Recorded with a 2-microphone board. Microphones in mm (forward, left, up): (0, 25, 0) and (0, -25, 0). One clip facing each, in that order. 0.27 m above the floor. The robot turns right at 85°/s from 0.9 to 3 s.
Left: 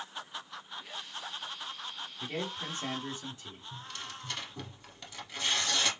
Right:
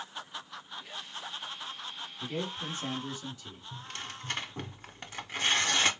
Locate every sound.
2.2 s a man speaking: 55° left, 1.6 m; by 3.6 s 125° left, 1.6 m
3.7 s tearing paper: 40° right (ahead or behind), 0.5 m